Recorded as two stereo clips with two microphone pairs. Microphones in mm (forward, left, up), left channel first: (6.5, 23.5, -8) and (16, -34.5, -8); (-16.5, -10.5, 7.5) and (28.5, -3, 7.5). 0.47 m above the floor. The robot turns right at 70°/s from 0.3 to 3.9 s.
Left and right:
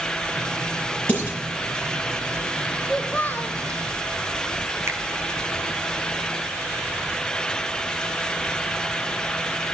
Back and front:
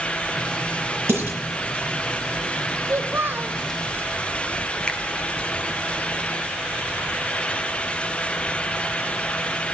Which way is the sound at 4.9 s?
110° right.